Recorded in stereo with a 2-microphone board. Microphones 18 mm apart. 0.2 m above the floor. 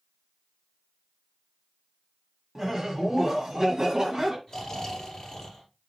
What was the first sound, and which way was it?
Laughter, 25° right (ahead or behind).